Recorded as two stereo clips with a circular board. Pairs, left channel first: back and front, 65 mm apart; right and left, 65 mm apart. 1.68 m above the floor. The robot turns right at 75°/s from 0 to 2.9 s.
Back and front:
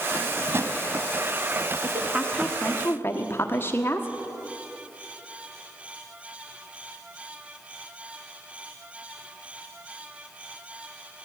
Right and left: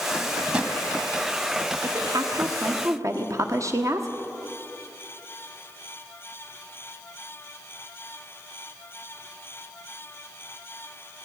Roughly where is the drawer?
Ahead.